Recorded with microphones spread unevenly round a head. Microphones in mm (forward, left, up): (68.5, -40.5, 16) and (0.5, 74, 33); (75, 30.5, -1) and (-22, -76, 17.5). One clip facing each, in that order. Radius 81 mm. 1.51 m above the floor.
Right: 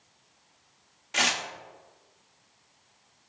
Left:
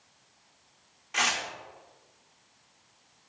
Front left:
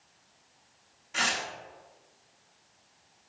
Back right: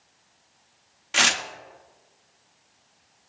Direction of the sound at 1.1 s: 125° right.